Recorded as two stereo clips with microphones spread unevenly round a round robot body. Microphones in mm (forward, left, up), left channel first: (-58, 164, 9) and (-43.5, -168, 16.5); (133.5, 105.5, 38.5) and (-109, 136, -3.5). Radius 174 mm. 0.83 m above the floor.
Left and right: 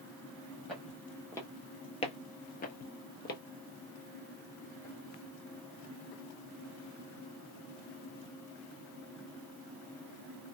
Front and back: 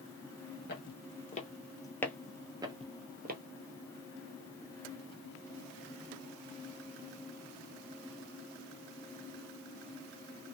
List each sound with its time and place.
0.7 s footsteps: 5° left, 1.3 m; by 3.4 s 135° left, 1.0 m